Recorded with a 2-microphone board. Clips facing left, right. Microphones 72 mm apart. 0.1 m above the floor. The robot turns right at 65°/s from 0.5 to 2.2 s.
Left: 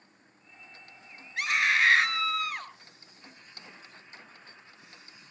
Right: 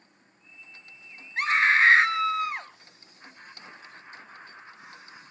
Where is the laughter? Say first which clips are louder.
Right 5 dB; 60° right (ahead or behind), 5.5 m.